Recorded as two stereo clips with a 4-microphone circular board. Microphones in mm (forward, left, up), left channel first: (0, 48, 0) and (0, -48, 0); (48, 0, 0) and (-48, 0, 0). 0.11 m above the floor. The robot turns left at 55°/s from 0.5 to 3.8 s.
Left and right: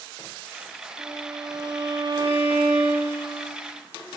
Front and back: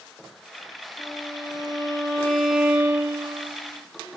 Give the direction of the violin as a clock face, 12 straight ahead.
12 o'clock.